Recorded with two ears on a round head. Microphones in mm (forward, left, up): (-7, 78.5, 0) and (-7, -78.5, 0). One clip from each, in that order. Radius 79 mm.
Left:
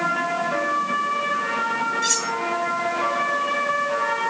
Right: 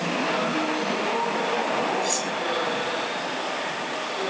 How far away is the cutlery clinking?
About 5.5 m.